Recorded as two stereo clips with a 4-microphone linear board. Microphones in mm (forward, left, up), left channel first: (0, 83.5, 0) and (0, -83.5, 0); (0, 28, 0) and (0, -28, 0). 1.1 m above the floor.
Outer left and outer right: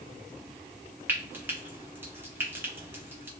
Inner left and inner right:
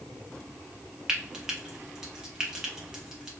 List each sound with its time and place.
1.1 s frying: 10° right (ahead or behind), 0.7 m